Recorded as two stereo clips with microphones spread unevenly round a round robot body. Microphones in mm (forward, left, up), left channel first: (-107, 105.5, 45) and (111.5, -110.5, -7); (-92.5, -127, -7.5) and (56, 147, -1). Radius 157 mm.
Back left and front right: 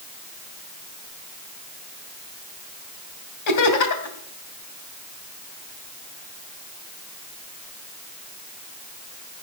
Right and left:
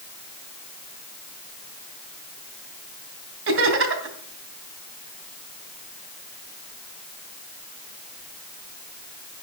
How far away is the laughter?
About 3 m.